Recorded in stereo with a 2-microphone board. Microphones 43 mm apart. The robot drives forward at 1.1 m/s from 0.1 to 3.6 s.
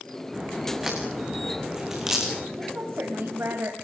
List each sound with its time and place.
0.3 s a crack: 5° right (ahead or behind), 8 m; by 2.5 s 10° right (ahead or behind), 5.5 m
2.6 s a woman speaking: 60° right (ahead or behind), 3.5 m; by 3.8 s 70° right (ahead or behind), 3.5 m